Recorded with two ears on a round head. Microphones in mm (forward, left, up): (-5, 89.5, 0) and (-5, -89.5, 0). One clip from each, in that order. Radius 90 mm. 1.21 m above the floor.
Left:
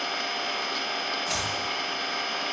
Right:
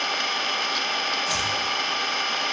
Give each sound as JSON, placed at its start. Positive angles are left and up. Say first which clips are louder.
{"t": 0.0, "sound": "an engine running", "louder": "right 4 dB", "side_deg": -30, "distance_m": 1.1}
{"t": 1.3, "sound": "chopping", "louder": "right 4 dB", "side_deg": -15, "distance_m": 3.0}